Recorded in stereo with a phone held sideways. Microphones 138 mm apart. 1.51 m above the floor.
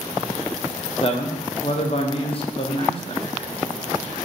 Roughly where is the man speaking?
Left.